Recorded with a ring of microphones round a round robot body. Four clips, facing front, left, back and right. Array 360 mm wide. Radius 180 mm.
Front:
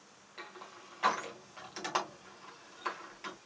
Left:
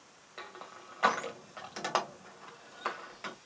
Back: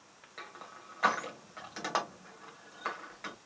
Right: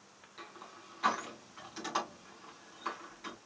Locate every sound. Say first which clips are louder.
0.4 s crushing: left 4 dB, back 1 dB; 110° left, 2 m